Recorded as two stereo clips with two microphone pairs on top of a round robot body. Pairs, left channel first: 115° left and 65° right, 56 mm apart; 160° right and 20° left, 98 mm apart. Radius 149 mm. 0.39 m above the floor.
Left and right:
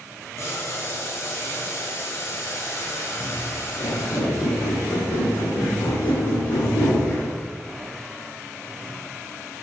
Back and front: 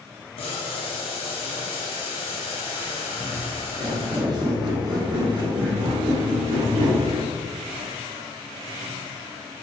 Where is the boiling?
165° left, 1.0 m.